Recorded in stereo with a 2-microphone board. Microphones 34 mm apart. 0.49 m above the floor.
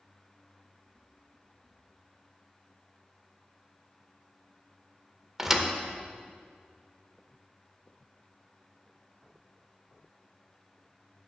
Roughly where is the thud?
Centre.